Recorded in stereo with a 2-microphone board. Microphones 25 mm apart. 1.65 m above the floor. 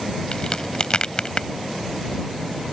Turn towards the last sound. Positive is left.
turn(degrees=40)  # may be behind; listen again after turning